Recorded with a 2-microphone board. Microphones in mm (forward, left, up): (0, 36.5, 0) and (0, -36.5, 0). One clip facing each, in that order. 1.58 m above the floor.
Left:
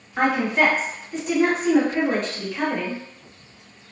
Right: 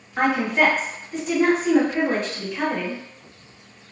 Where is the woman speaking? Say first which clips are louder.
Even; centre (ahead or behind), 1.2 m.